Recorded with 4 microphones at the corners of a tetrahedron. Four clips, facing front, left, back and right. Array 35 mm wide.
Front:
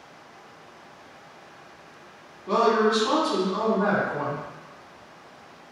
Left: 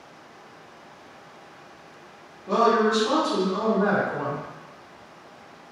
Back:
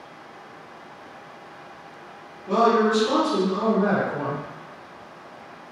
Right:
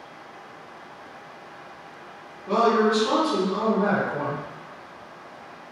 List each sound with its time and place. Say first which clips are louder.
2.5 s a woman speaking: even, back 2 dB; 20° right, 1.8 m